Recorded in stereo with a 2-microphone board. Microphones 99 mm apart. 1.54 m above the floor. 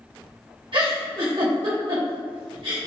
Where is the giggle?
55° right (ahead or behind), 1.1 m.